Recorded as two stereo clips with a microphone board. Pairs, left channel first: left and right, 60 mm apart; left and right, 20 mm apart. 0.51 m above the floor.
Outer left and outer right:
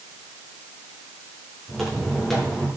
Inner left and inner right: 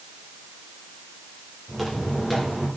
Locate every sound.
1.7 s footsteps: centre (ahead or behind), 7 m